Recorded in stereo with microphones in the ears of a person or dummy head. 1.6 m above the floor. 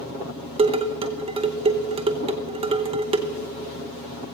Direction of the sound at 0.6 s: 30° right (ahead or behind).